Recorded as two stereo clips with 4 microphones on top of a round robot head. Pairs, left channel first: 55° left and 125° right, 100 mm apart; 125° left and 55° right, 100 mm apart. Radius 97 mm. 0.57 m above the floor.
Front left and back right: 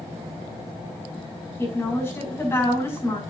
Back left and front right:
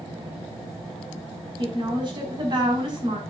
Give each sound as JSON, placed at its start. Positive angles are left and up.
{"t": 1.6, "sound": "a woman speaking", "azimuth_deg": -10, "distance_m": 5.5}